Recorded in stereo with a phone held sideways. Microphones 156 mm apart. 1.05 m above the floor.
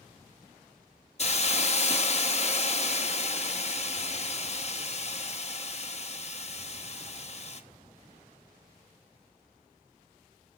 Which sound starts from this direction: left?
A hiss, at 1.2 s.